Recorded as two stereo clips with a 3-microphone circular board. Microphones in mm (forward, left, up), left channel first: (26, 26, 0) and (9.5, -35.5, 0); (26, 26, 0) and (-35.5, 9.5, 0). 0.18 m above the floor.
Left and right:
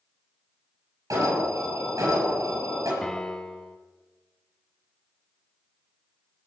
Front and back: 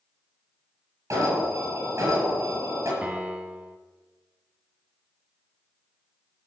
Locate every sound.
1.1 s an alarm: 125° right, 6 m
3.0 s a piano: 145° left, 1.2 m